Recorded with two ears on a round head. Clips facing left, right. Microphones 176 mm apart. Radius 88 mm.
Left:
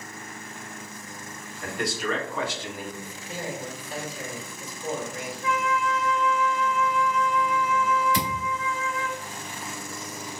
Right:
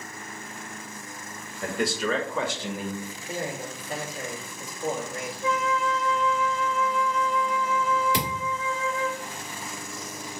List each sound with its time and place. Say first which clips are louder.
1.6 s a man speaking: right 2 dB; 70° right (ahead or behind), 1.4 m; by 2.9 s 75° right (ahead or behind), 0.9 m
3.0 s a man speaking: right 2 dB; 40° right (ahead or behind), 1.5 m
5.4 s a flute: even; 20° right (ahead or behind), 0.7 m
8.1 s a thud: left 1 dB; 55° right (ahead or behind), 1.7 m